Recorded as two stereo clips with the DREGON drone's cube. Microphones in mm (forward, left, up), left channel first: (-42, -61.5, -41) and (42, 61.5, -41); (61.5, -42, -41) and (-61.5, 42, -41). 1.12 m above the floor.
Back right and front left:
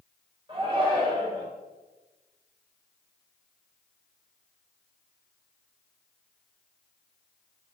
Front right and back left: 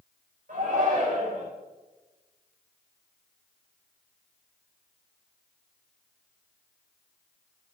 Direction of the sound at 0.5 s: 110° left.